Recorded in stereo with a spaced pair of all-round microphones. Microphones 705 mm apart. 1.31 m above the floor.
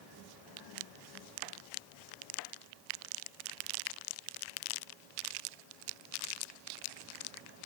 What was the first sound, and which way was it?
Only background noise.